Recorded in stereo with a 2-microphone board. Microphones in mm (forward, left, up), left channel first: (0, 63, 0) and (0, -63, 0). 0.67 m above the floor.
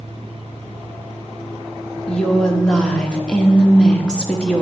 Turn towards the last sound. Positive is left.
turn(degrees=5)  # may be behind; listen again after turning